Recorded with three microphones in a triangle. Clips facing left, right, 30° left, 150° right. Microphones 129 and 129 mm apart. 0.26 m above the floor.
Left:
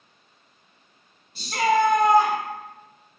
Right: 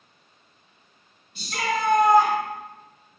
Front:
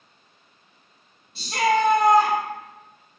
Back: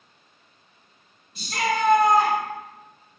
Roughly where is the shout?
Ahead left.